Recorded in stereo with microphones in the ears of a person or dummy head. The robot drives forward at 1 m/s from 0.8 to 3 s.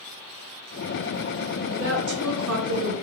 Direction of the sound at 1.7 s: 45° right (ahead or behind).